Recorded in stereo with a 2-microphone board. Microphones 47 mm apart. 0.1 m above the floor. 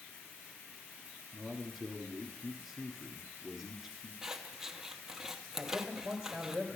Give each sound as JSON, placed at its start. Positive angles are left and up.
{"t": 1.3, "sound": "a man speaking", "side_deg": -5, "distance_m": 1.3}
{"t": 4.2, "sound": "scissors", "side_deg": -10, "distance_m": 0.9}
{"t": 5.6, "sound": "a man speaking", "side_deg": -10, "distance_m": 2.0}